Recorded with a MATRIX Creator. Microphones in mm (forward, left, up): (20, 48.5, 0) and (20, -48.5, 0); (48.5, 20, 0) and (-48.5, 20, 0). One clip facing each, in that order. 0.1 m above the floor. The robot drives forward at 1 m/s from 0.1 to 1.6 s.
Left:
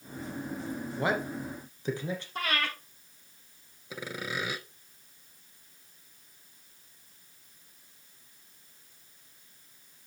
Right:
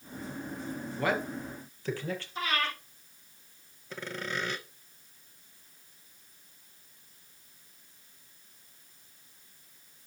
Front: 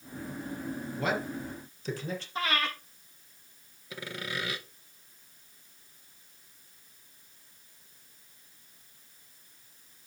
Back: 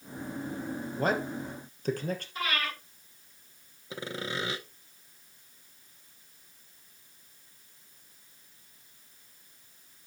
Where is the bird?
I don't hear a bird.